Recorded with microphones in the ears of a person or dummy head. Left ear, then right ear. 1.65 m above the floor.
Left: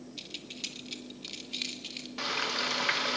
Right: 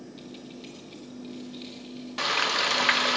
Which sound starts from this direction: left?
Keys jangling, at 0.2 s.